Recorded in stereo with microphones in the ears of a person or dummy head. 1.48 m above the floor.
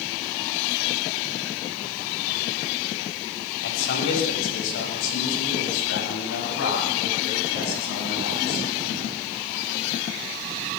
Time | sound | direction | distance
3.6 | a man speaking | 70° left (ahead or behind) | 7.5 m